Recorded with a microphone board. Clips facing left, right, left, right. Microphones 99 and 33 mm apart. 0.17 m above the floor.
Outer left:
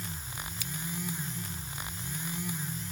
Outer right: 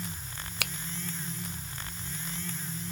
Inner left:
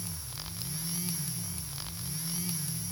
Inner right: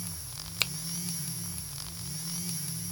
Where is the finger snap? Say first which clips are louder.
Outer right 5 dB, inner right 16 dB; 70° right (ahead or behind).